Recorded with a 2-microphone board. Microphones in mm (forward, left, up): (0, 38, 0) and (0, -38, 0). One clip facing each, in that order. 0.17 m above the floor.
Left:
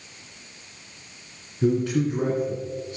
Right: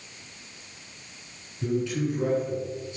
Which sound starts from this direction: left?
A man speaking, at 1.6 s.